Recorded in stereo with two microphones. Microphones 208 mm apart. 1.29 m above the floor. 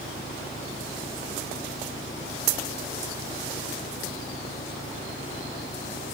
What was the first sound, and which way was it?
An engine running, 65° left (ahead or behind).